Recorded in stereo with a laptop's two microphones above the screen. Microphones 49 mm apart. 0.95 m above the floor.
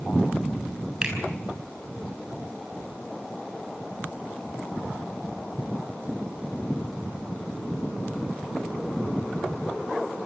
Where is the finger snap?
15° right (ahead or behind), 8 m.